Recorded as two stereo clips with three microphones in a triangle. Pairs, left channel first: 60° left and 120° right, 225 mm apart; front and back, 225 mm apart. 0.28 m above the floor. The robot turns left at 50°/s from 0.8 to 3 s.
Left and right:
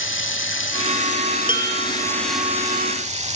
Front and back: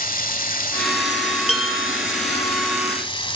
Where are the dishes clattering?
10° right, 5 m; by 1.9 s 30° right, 5 m.